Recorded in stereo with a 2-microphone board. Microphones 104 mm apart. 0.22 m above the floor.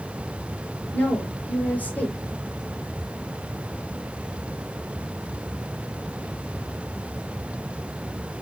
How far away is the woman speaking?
About 5 m.